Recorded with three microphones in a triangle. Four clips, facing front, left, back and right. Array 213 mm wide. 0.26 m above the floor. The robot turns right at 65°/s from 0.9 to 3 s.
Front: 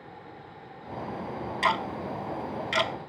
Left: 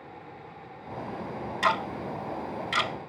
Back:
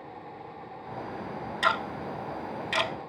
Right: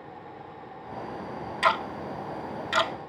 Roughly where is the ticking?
Right.